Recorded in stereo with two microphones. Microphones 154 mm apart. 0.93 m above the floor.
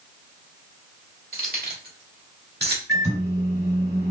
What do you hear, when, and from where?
1.3 s keys jangling: 70° right (ahead or behind), 2 m; by 2.8 s 85° right, 1.2 m
2.9 s a microwave: 80° right, 2.5 m